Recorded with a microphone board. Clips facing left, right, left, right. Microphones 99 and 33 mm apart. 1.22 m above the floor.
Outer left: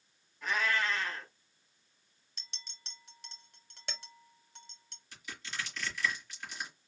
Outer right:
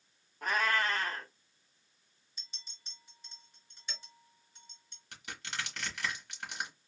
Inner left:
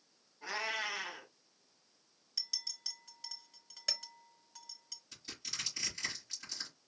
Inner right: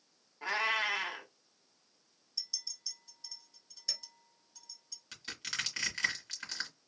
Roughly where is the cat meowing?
Right.